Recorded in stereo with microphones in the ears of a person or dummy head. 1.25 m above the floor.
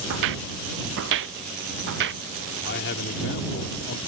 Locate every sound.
0.1 s footsteps: 65° right (ahead or behind); by 2.2 s 60° right (ahead or behind)
2.6 s a man speaking: 60° left (ahead or behind)